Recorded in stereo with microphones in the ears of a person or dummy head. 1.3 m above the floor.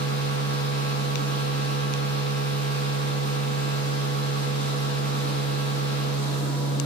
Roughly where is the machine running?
Right.